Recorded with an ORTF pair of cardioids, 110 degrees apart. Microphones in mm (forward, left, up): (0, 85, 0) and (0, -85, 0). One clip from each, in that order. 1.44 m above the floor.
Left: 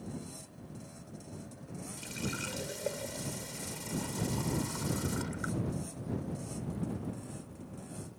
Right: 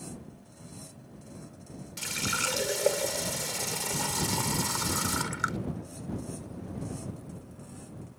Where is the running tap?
65° right.